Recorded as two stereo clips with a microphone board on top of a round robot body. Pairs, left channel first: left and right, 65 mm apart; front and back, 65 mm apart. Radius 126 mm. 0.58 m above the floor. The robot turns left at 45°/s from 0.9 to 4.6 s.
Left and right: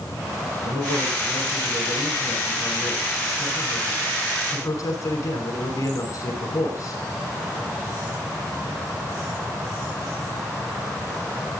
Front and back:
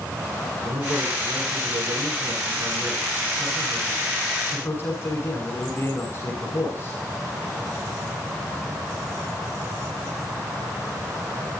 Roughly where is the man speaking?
Behind right.